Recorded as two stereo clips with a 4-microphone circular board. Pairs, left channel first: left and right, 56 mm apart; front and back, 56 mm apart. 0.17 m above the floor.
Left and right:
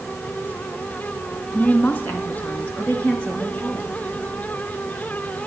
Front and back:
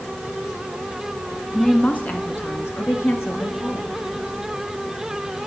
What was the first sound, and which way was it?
A woman speaking, 60° left.